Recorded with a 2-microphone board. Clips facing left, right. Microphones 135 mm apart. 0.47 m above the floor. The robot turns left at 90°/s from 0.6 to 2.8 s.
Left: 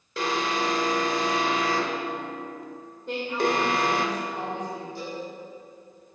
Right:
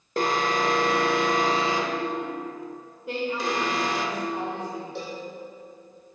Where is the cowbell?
70° right (ahead or behind), 3.5 m.